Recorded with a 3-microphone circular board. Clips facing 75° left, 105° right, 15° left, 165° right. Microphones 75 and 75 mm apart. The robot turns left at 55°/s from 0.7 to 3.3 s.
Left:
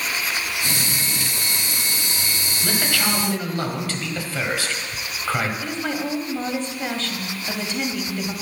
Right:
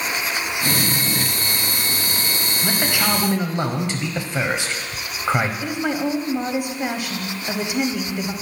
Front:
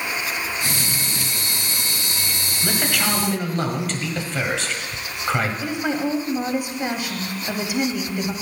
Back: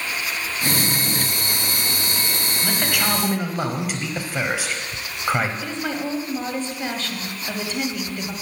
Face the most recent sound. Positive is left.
turn(degrees=-45)